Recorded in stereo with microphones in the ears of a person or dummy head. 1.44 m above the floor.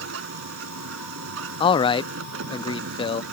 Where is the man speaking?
30° left (ahead or behind).